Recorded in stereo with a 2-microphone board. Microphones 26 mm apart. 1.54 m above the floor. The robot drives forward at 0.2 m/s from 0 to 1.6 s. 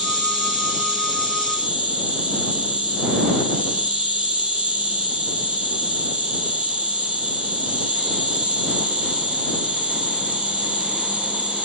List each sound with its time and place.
0.0 s an insect: 40° right (ahead or behind), 2 m